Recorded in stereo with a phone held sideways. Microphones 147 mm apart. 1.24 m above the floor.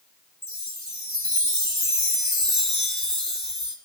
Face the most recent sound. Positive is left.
turn(degrees=45)  # may be behind; listen again after turning